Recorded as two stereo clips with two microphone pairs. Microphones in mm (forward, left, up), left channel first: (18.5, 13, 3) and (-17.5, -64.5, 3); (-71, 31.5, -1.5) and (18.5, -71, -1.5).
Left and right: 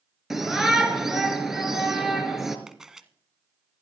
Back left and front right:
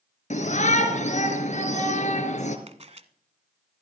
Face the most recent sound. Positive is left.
turn(degrees=-35)